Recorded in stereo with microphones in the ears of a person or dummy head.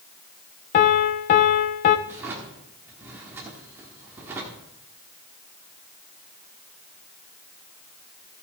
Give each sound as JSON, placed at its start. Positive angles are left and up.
{"t": 0.7, "sound": "a piano", "side_deg": 30, "distance_m": 0.7}
{"t": 2.1, "sound": "a drawer", "side_deg": -15, "distance_m": 1.4}